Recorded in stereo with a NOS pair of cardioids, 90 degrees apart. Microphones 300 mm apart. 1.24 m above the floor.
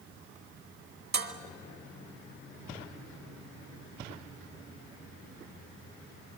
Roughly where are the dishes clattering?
Ahead right.